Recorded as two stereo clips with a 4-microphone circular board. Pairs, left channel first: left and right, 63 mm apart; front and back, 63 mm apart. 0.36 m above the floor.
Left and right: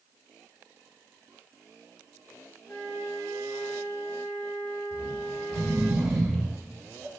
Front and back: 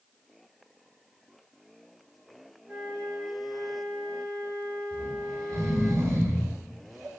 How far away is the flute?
About 2.5 m.